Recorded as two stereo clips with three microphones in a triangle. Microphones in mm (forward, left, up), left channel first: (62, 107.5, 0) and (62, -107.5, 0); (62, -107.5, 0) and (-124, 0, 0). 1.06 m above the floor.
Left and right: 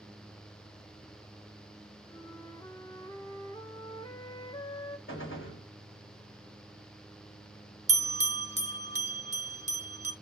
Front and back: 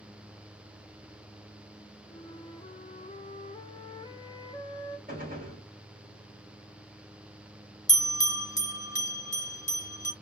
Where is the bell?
55° right, 0.7 m.